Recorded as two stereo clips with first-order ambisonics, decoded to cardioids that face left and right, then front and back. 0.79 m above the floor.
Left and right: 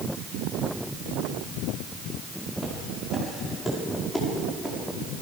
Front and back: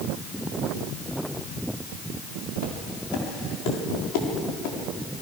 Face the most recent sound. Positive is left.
turn(degrees=15)